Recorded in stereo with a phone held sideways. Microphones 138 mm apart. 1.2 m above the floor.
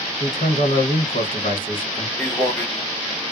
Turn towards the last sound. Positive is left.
turn(degrees=20)  # may be behind; listen again after turning